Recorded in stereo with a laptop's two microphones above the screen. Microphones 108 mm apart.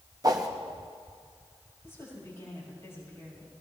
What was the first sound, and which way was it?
A whoosh, 35° right (ahead or behind).